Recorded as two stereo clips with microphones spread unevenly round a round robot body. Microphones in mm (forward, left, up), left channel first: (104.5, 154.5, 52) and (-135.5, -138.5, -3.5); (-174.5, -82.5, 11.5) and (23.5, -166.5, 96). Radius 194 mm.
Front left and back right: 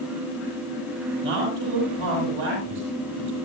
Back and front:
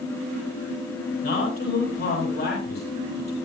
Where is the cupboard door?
I don't hear a cupboard door.